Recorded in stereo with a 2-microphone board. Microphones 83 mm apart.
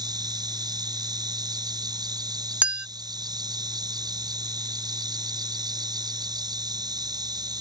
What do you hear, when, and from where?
0.0 s an insect: 55° right (ahead or behind)
2.6 s a clink: 15° right (ahead or behind)